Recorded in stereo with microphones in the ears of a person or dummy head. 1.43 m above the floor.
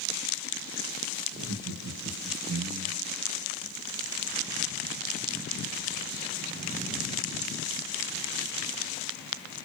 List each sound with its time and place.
1.3 s laughter: 85° right, 1.6 m; by 3.2 s 60° right (ahead or behind), 0.6 m